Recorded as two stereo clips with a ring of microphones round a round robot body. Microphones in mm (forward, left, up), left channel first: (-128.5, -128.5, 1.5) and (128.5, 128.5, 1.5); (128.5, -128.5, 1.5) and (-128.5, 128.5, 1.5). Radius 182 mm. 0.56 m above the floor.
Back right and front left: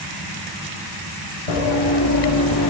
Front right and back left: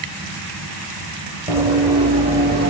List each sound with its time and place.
1.5 s running footsteps: 140° right, 1.5 m; by 2.7 s 170° right, 1.0 m